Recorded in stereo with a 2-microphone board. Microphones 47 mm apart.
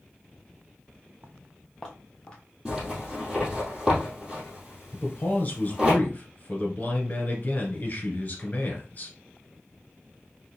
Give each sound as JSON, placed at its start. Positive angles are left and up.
{"t": 1.2, "sound": "footsteps", "side_deg": -25, "distance_m": 0.6}
{"t": 2.6, "sound": "a zipper", "side_deg": -10, "distance_m": 2.5}
{"t": 4.9, "sound": "a man speaking", "side_deg": 40, "distance_m": 1.4}